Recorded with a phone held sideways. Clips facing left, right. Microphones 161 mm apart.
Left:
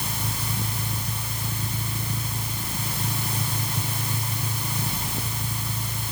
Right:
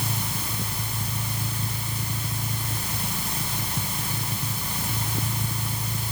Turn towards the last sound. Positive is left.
No sound to turn to.